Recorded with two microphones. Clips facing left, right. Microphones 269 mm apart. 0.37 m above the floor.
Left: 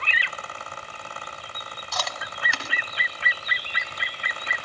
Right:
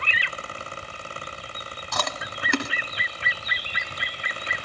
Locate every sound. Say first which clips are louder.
1.9 s chewing: right 3 dB; 55° right (ahead or behind), 1.2 m